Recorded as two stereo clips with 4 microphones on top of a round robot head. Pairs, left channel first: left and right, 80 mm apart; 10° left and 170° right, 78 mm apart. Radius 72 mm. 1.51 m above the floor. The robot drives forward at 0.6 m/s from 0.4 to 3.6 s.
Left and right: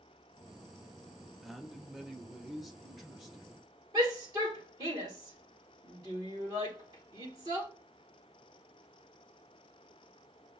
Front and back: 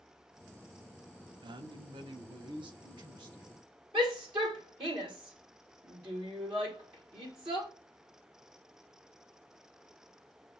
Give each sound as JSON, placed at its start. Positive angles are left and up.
{"t": 1.4, "sound": "a man speaking", "azimuth_deg": 180, "distance_m": 0.6}
{"t": 3.9, "sound": "a shout", "azimuth_deg": -140, "distance_m": 2.0}